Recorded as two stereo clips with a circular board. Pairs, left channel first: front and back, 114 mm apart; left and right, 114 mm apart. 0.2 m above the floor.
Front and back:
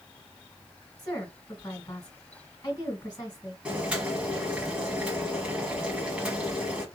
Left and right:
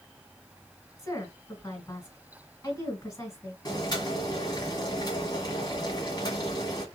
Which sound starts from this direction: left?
Boiling, at 3.6 s.